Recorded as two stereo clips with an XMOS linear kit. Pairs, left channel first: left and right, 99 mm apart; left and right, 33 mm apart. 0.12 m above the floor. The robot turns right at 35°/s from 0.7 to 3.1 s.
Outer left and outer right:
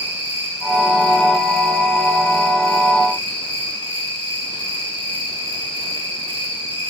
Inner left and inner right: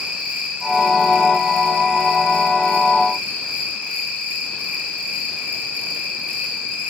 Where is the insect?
140° right, 2 m; by 6.9 s 55° right, 2 m.